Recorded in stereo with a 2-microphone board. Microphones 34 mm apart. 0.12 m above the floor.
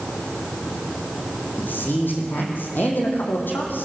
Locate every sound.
1.6 s a man speaking: 70° left (ahead or behind), 5.5 m